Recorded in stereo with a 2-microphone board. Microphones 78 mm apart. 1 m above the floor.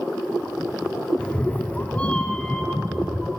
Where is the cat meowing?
10° left (ahead or behind), 0.7 m; by 3.3 s 5° left (ahead or behind), 1.7 m.